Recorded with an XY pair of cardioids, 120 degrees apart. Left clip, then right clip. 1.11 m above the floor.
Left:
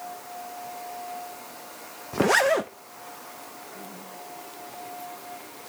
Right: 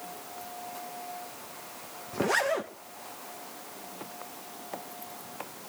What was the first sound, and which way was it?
A zipper, 40° left.